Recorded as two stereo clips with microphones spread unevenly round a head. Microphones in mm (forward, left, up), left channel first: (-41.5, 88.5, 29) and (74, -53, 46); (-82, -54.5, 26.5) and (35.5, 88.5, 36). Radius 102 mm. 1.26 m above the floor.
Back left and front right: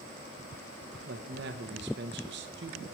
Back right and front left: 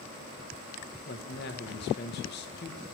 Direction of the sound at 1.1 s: 90° right.